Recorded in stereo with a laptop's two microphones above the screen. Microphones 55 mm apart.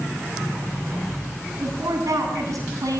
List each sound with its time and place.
1.6 s a woman speaking: 85° right, 9 m